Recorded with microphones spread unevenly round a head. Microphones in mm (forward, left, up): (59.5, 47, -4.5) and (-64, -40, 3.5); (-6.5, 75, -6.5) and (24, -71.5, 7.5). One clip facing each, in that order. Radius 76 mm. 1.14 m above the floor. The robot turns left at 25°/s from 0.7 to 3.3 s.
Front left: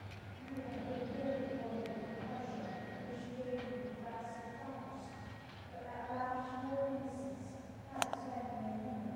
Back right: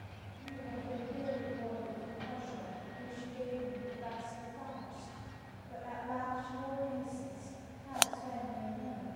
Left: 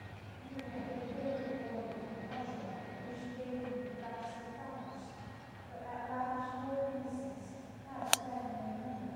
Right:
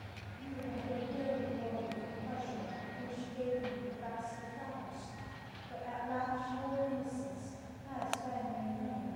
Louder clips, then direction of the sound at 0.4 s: Even, right 2 dB; 60° right.